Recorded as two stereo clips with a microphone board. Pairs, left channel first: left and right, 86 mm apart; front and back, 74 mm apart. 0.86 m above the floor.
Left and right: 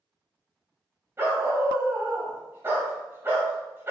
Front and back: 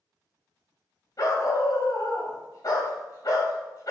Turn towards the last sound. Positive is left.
turn(degrees=-30)